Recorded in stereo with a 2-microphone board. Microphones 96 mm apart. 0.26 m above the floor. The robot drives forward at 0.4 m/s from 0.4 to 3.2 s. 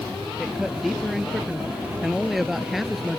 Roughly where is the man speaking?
Centre.